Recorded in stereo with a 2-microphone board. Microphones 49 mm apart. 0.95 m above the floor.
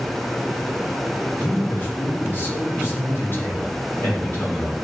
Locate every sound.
1.4 s a man speaking: 50° left (ahead or behind), 3 m; by 4.7 s 55° left (ahead or behind), 6.5 m